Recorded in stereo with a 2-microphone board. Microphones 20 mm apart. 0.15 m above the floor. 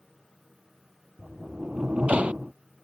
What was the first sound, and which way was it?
A sliding door, 65° right (ahead or behind).